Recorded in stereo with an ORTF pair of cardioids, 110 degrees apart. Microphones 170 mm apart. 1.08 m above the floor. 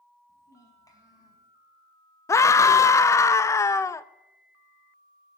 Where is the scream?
20° left, 0.6 m.